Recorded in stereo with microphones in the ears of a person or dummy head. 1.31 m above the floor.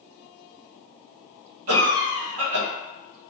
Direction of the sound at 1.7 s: 65° right (ahead or behind).